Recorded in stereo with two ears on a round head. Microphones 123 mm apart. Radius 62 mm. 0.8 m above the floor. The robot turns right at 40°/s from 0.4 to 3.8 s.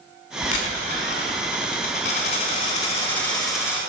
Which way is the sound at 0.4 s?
55° left.